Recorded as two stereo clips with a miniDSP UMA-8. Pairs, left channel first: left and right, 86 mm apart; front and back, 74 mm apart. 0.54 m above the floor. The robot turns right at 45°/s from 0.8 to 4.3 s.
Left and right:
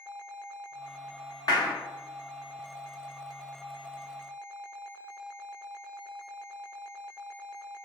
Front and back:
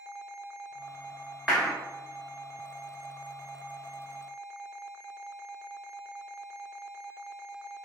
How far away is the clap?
About 1.0 m.